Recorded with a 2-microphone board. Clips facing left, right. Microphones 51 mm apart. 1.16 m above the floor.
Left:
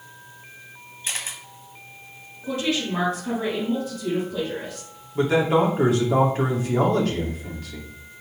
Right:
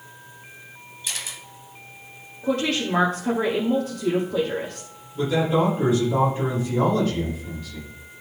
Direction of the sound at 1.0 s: 40° left (ahead or behind).